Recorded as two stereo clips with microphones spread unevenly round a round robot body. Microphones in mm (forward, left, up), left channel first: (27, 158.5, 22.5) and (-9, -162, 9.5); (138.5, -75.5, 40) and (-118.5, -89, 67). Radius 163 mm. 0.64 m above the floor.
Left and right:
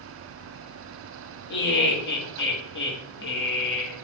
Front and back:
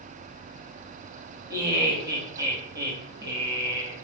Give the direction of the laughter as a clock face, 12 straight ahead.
8 o'clock.